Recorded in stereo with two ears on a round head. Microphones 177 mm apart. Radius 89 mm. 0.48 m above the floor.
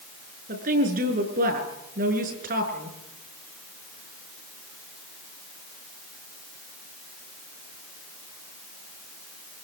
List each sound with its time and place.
0.5 s a woman speaking: 45° right (ahead or behind), 6 m